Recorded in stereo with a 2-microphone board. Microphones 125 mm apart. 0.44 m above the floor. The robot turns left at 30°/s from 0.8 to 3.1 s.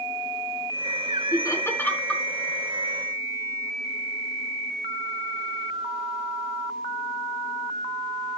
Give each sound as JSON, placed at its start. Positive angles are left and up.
{"t": 1.3, "sound": "laughter", "side_deg": 30, "distance_m": 4.5}